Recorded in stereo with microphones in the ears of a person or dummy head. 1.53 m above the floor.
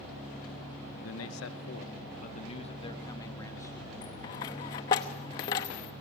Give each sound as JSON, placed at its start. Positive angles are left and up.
{"t": 1.0, "sound": "a man speaking", "side_deg": 85, "distance_m": 1.5}
{"t": 4.0, "sound": "a dropped coin", "side_deg": 20, "distance_m": 0.9}